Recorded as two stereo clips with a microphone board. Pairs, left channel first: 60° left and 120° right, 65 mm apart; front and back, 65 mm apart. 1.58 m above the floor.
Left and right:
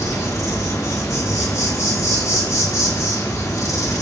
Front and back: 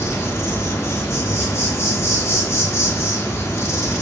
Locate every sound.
0.0 s an insect: 35° left, 2 m